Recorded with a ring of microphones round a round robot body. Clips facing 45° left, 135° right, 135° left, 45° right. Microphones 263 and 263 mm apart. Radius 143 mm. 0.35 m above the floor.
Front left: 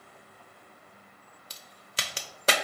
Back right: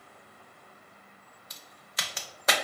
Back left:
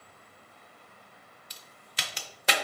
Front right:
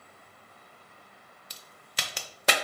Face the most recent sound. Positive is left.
turn(degrees=-10)